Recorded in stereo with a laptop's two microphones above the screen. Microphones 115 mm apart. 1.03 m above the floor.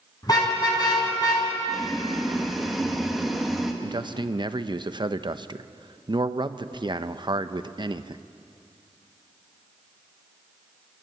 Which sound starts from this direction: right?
A man speaking, at 3.8 s.